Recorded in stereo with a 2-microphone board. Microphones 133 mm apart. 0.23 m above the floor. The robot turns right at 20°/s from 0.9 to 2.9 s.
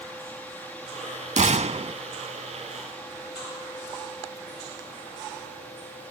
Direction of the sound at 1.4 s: 60° right (ahead or behind).